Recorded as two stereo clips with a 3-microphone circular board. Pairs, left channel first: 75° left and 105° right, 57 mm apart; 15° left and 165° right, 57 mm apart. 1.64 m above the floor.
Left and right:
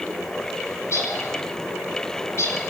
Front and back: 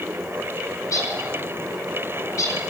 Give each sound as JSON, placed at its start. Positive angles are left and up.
{"t": 0.8, "sound": "a bird", "azimuth_deg": 40, "distance_m": 9.5}